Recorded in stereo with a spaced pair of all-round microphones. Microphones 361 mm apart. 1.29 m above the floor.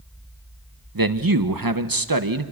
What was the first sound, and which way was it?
A man speaking, 65° right (ahead or behind).